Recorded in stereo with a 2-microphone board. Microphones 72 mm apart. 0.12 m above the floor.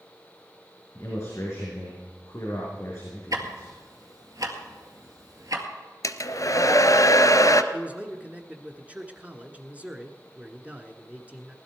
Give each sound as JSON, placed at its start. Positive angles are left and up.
{"t": 0.9, "sound": "a man speaking", "side_deg": 40, "distance_m": 5.0}
{"t": 3.3, "sound": "ticking", "side_deg": -55, "distance_m": 2.0}
{"t": 6.0, "sound": "a hair dryer", "side_deg": 50, "distance_m": 0.8}
{"t": 7.7, "sound": "a man speaking", "side_deg": -20, "distance_m": 1.2}